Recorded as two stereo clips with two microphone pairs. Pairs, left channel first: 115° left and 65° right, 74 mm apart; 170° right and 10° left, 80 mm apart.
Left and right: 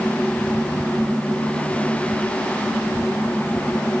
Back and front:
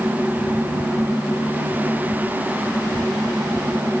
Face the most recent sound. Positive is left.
No sound to turn to.